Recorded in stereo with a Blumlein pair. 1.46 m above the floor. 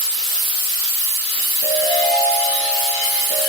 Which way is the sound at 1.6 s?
60° right.